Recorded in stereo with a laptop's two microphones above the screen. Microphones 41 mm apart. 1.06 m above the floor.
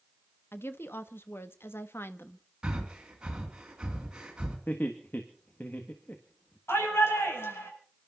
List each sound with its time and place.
0.5 s a woman speaking: 70° left (ahead or behind), 1.1 m
2.6 s breathing: 15° right (ahead or behind), 3 m
4.7 s laughter: 45° left (ahead or behind), 1.6 m
6.7 s a shout: 80° left, 7 m